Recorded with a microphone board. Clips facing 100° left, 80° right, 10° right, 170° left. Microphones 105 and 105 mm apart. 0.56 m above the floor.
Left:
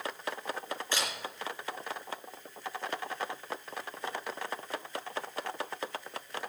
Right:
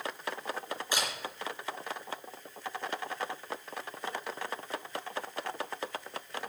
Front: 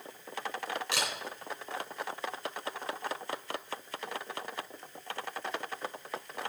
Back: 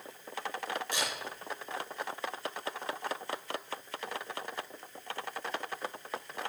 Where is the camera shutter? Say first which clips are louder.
Right 1 dB, front 2 dB; 5° right, 3.5 m.